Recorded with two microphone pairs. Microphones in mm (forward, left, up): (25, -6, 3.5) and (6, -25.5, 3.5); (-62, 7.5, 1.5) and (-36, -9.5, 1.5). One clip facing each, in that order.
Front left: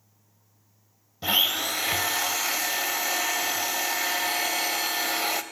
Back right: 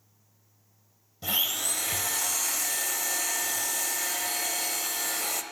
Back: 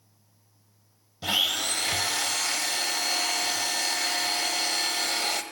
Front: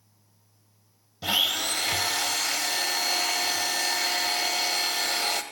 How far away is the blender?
About 0.5 m.